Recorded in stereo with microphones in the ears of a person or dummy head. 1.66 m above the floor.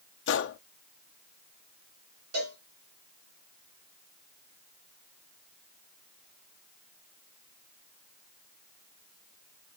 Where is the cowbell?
80° right, 4.5 m.